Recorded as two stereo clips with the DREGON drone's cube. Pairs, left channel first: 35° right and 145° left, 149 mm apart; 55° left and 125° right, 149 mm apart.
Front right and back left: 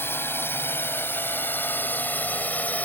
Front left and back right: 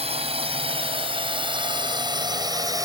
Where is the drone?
105° right; by 2.8 s 100° right.